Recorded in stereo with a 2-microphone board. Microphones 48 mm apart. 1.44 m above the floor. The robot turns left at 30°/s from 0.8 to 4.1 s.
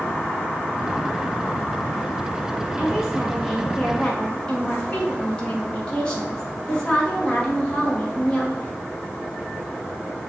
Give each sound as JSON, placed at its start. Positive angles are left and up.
{"t": 2.8, "sound": "a woman speaking", "azimuth_deg": -160, "distance_m": 1.9}